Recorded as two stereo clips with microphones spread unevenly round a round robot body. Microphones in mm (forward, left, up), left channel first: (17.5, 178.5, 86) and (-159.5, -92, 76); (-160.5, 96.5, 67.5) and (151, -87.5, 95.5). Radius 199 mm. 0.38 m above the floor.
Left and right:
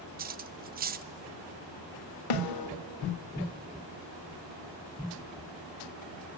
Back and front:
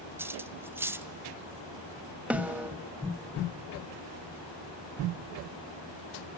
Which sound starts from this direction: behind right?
Cutlery clinking, at 0.2 s.